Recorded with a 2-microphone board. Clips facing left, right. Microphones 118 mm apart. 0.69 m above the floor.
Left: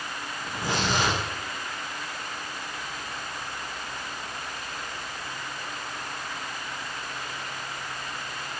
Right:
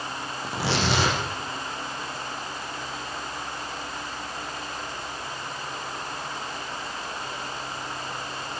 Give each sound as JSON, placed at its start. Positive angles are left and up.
{"t": 0.4, "sound": "tearing paper", "side_deg": -75, "distance_m": 10.0}